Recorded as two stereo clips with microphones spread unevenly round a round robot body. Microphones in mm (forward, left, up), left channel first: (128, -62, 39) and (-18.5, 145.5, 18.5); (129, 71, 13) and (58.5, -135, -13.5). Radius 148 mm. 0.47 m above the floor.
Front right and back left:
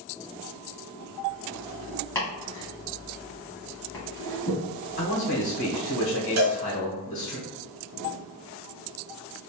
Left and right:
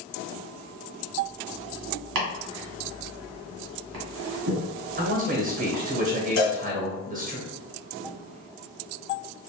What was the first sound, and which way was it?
Chopping, 135° right.